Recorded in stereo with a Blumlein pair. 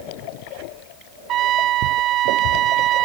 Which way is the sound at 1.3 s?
35° right.